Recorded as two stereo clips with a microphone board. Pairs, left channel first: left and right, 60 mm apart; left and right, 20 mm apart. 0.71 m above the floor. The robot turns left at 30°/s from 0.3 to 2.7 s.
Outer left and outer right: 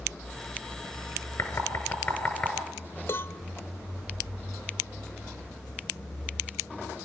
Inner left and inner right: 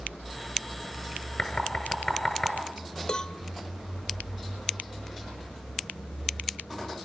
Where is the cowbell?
45° left (ahead or behind), 0.9 m.